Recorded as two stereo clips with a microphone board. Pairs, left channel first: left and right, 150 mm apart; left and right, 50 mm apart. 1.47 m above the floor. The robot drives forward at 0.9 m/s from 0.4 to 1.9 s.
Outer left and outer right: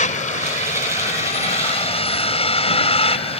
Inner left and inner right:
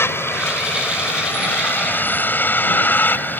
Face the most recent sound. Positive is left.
turn(degrees=45)  # may be behind; listen again after turning